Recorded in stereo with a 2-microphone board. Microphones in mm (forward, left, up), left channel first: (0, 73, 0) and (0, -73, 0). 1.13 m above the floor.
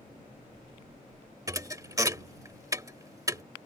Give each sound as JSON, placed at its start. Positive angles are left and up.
{"t": 1.5, "sound": "a thud", "side_deg": -25}